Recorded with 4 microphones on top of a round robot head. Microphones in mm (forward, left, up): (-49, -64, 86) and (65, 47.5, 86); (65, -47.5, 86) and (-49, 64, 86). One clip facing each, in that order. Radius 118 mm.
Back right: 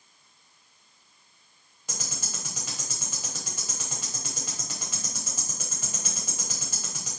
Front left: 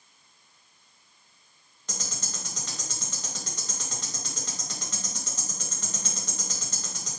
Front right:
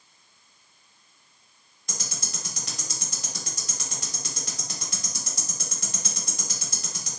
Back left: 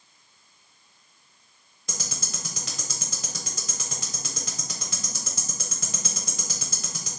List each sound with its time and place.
1.9 s ticking: 145° left, 1.1 m